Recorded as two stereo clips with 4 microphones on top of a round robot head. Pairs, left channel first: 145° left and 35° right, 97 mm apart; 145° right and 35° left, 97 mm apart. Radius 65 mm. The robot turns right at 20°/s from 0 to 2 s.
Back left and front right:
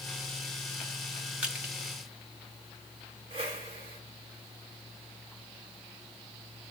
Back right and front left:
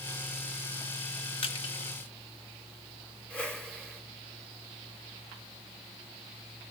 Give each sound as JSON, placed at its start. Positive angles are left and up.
{"t": 1.4, "sound": "crushing", "azimuth_deg": -110, "distance_m": 1.5}
{"t": 3.3, "sound": "a whoosh", "azimuth_deg": -70, "distance_m": 1.6}